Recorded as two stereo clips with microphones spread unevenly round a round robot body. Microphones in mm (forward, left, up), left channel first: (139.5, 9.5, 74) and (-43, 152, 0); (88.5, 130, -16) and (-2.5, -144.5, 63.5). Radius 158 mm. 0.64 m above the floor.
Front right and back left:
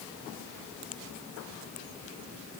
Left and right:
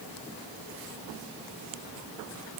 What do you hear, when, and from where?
Only background noise.